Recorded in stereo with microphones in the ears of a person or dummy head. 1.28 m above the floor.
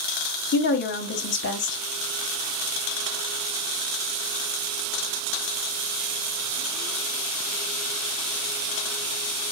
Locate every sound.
0.5 s a woman speaking: 55° left (ahead or behind), 1.2 m